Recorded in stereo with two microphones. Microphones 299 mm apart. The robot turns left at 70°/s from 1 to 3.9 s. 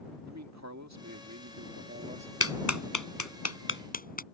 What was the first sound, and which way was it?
A man speaking, 70° right.